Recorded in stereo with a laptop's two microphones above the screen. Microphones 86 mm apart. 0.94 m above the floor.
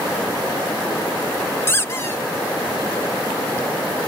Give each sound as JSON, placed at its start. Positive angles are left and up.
{"t": 1.7, "sound": "a squeak", "side_deg": 30}